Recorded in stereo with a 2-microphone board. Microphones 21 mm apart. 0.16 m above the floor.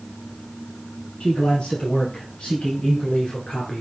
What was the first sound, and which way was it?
A man speaking, 60° left (ahead or behind).